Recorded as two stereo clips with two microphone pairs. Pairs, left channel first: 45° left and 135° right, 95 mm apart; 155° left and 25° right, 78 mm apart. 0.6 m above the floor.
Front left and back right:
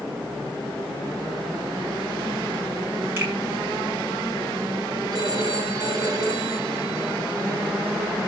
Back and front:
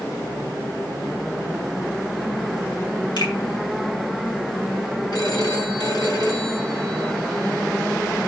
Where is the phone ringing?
Straight behind, 4 m.